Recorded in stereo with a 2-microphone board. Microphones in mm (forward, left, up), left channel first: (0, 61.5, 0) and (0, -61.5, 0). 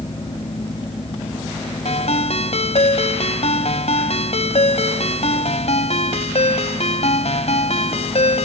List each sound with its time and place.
1.9 s a ringtone: 65° left (ahead or behind)